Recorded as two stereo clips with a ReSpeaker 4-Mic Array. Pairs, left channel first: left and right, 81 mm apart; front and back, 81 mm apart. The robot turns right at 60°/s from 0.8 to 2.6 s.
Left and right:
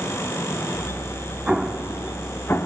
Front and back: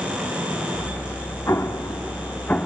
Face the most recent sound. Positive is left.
turn(degrees=60)